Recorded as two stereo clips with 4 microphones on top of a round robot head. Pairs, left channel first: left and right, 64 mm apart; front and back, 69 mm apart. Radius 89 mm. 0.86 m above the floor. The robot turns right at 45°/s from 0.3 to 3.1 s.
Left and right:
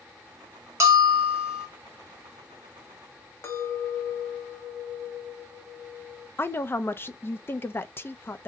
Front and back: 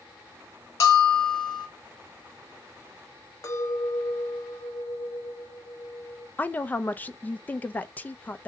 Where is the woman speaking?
55° left, 0.6 m.